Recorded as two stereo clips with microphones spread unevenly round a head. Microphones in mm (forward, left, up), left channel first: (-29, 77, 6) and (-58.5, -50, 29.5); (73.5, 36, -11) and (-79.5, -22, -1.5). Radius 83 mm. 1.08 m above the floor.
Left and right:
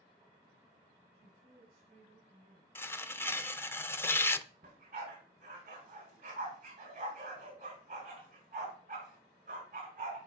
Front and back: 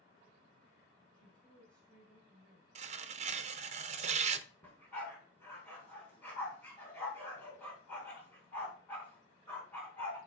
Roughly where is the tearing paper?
Behind left.